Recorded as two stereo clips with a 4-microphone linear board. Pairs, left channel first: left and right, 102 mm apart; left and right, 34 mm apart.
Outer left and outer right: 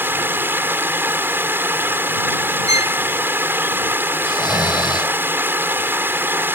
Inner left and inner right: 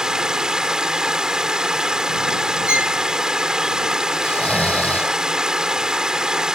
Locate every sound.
0.0 s running water: 20° right (ahead or behind)
2.7 s a violin: 35° right (ahead or behind)
4.2 s snoring: 45° left (ahead or behind)